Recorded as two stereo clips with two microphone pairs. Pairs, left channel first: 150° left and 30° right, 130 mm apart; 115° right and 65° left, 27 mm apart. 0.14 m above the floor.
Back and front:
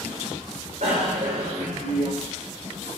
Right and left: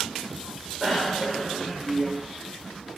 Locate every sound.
0.8 s a bicycle bell: 10° right, 7.5 m; by 2.1 s 25° right, 6 m